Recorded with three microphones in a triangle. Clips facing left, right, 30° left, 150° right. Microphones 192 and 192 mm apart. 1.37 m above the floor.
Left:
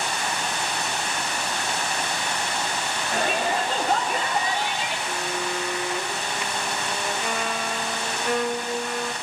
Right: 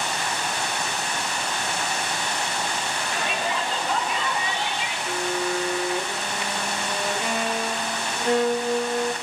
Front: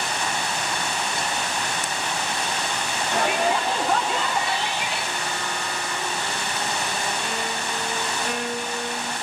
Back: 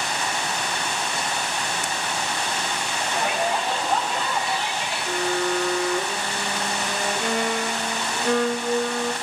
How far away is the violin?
About 1.8 m.